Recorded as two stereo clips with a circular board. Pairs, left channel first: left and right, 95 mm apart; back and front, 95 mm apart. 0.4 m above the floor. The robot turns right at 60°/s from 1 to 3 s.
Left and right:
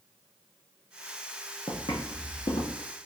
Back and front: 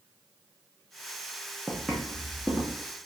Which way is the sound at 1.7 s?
80° left.